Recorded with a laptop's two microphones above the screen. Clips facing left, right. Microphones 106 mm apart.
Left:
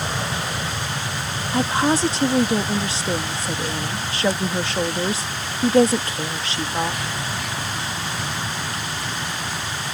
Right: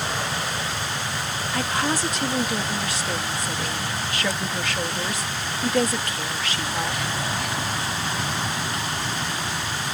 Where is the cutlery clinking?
I don't hear cutlery clinking.